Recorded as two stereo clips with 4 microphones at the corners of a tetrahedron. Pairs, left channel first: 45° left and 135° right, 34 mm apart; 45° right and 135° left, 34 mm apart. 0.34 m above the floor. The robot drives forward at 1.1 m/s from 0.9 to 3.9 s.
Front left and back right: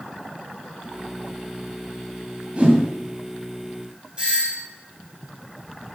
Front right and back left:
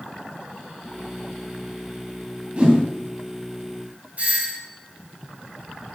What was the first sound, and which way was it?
A whoosh, straight behind.